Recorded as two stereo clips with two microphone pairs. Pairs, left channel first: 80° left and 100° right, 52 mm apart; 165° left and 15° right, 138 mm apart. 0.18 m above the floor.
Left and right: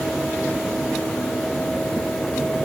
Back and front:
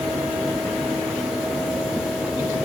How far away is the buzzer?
I don't hear a buzzer.